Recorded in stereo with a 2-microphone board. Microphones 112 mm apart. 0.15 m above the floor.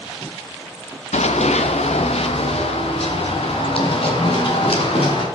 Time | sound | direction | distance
1.1 | running footsteps | 80° left | 0.9 m